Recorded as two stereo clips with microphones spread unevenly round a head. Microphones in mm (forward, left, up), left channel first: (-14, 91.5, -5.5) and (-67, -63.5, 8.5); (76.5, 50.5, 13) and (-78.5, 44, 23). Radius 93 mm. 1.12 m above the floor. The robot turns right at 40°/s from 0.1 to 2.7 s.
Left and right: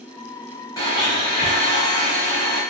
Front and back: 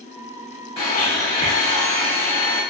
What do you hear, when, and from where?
0.8 s a blender: 10° left, 1.0 m; by 2.6 s 85° left, 1.0 m